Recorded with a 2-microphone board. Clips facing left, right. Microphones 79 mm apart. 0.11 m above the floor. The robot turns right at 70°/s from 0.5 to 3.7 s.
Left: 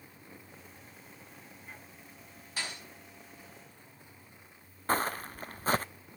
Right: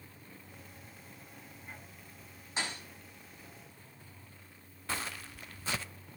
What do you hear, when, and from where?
2.6 s a thud: 25° right (ahead or behind), 8 m; by 2.8 s 45° right (ahead or behind), 8 m
4.9 s footsteps: 40° left (ahead or behind), 0.5 m